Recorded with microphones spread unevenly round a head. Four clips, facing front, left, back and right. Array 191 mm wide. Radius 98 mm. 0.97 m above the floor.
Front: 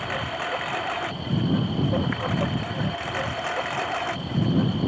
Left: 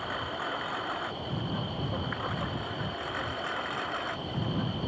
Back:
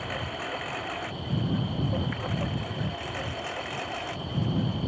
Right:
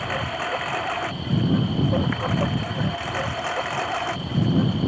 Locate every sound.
0.0 s a lawn mower: 50° right; by 4.9 s 40° right